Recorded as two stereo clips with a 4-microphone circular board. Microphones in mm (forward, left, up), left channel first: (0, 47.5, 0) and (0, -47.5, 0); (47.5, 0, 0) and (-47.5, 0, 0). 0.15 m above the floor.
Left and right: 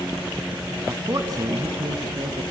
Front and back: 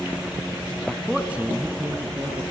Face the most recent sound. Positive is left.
turn(degrees=-125)